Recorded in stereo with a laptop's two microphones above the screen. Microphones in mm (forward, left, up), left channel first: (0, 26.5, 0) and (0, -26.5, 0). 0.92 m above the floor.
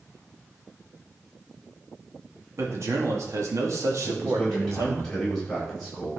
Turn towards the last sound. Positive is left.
turn(degrees=10)  # may be behind; listen again after turning